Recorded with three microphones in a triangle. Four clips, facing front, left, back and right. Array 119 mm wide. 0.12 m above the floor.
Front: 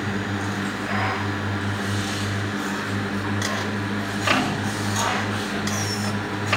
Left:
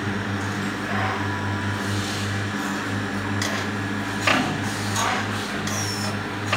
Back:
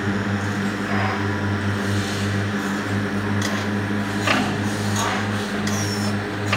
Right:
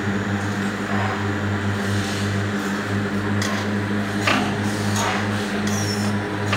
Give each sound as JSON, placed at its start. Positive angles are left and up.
{"t": 0.0, "sound": "a drone", "azimuth_deg": -140}